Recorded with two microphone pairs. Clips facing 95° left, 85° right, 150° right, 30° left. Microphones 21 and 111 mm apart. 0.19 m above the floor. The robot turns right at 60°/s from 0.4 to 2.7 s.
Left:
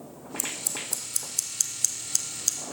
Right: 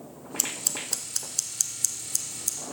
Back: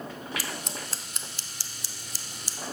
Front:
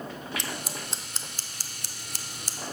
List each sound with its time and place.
0.4 s scissors: 65° right, 1.1 m; by 2.6 s 65° left, 1.1 m